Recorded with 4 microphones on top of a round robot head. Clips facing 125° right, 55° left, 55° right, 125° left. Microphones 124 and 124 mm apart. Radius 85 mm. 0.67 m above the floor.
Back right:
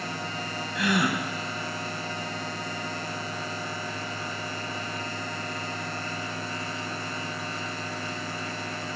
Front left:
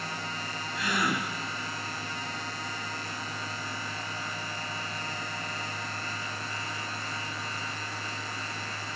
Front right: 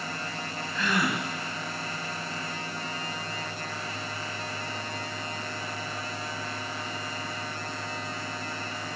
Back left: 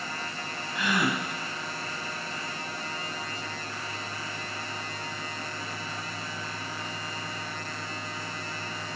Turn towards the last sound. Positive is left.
turn(degrees=-160)